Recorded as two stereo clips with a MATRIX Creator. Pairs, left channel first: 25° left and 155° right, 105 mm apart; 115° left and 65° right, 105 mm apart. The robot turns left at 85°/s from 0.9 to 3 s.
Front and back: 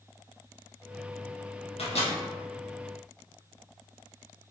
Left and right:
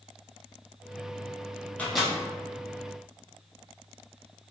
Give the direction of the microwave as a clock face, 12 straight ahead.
11 o'clock.